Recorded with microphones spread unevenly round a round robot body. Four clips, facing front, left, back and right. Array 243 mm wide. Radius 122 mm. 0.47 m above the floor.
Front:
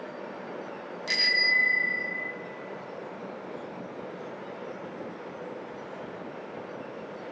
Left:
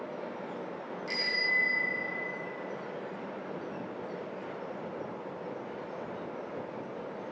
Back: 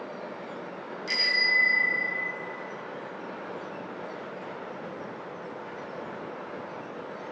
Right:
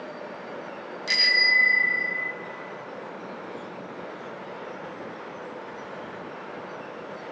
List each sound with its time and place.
1.1 s a bicycle bell: 75° right, 2.5 m; by 2.3 s 45° right, 2.5 m